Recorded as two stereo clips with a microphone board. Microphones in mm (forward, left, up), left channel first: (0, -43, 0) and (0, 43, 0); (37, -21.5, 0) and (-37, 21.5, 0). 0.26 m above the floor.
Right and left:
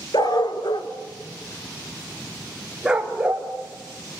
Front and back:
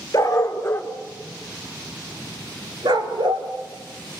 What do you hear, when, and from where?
0.1 s a dog barking: 75° right, 1.7 m; by 3.5 s 160° left, 2 m